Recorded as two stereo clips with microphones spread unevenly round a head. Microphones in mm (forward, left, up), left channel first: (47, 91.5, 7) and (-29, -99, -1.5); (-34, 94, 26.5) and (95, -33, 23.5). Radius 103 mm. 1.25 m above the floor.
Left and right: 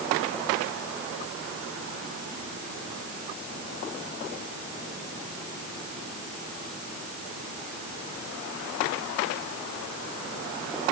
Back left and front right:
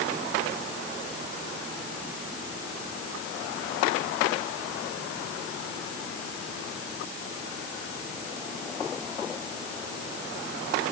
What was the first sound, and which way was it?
Only background noise.